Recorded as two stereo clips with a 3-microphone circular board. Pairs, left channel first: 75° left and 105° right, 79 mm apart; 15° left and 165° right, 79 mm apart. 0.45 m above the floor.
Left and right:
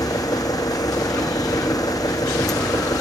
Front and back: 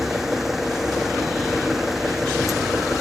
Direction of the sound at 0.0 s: 110° left.